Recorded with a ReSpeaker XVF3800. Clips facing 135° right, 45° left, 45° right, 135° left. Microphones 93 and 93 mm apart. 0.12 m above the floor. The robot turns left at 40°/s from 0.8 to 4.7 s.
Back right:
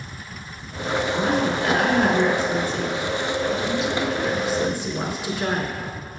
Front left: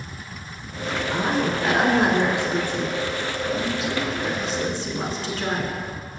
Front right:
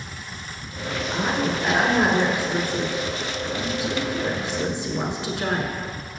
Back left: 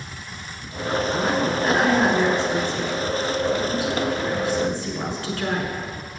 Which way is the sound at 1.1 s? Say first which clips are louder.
Even, front right 1 dB; 65° left.